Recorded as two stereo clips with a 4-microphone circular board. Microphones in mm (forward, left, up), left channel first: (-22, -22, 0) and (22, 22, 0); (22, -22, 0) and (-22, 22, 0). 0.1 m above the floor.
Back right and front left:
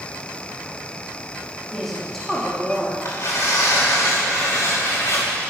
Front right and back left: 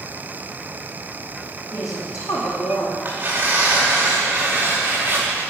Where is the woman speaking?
50° right, 4.5 m.